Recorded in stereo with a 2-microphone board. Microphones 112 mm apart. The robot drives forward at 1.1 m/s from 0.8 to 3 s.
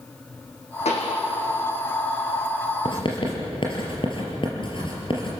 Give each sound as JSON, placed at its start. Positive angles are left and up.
{"t": 0.8, "sound": "a pop", "side_deg": 75, "distance_m": 4.0}
{"t": 2.9, "sound": "writing", "side_deg": 45, "distance_m": 5.0}